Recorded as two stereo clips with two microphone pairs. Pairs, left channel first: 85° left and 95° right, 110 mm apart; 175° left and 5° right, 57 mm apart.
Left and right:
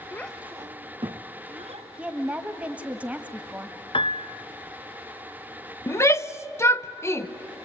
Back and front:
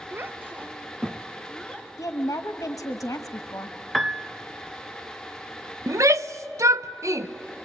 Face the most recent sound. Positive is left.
turn(degrees=20)